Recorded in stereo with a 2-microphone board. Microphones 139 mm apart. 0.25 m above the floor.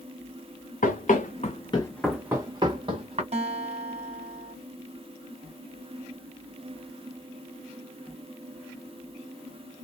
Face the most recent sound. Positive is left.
turn(degrees=-50)  # may be behind; listen again after turning